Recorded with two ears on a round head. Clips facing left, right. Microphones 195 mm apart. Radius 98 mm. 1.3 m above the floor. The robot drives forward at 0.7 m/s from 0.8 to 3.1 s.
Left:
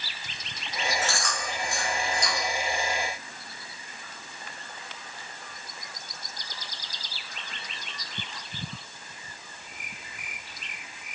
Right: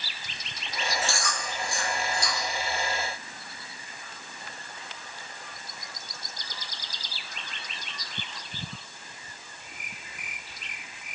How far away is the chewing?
About 3 m.